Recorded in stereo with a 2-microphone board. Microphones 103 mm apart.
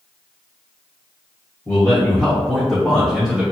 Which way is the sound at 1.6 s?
20° left (ahead or behind).